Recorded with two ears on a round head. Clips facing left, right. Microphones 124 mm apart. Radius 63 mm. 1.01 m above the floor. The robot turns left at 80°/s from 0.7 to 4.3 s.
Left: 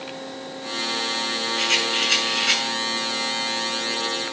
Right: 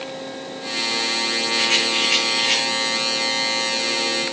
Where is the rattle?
150° left, 6 m; by 2.6 s 65° left, 6 m.